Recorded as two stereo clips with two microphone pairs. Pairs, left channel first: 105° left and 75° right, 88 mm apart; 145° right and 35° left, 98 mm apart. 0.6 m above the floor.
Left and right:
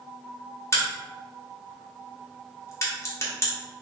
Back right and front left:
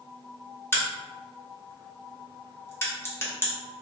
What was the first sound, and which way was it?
A crack, 155° left.